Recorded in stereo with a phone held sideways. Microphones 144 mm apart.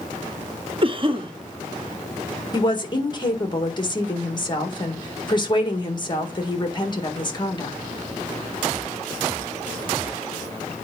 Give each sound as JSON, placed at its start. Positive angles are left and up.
{"t": 0.8, "sound": "a cough", "side_deg": -35, "distance_m": 1.2}
{"t": 2.5, "sound": "a woman speaking", "side_deg": 30, "distance_m": 1.7}